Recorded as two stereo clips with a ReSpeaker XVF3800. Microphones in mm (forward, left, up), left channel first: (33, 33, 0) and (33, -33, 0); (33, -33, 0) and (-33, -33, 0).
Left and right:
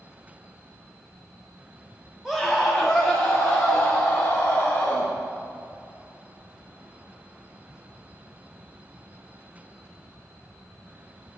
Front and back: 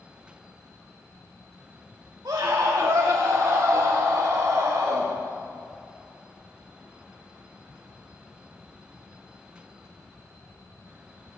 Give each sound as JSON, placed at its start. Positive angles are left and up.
{"t": 2.2, "sound": "a scream", "azimuth_deg": -175, "distance_m": 1.3}